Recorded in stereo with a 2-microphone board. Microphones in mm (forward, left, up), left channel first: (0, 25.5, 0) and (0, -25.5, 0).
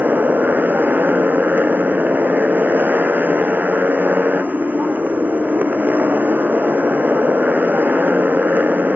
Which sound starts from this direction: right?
A motorcycle, at 0.0 s.